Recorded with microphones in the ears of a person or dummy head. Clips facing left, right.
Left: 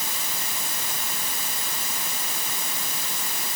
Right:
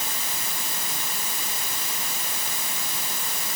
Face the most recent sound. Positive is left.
No sound to turn to.